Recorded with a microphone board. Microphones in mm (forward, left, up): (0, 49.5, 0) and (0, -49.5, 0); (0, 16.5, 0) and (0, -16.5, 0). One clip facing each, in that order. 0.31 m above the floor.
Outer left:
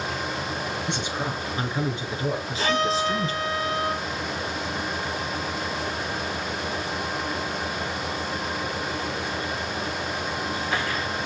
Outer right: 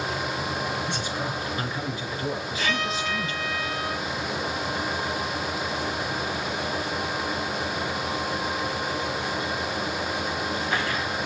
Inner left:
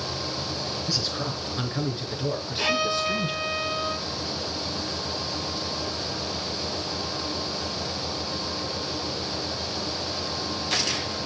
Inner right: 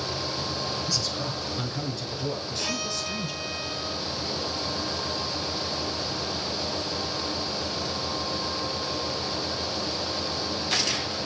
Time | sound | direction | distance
0.9 | a man speaking | 20° left (ahead or behind) | 5 m
2.6 | a violin | 35° left (ahead or behind) | 0.9 m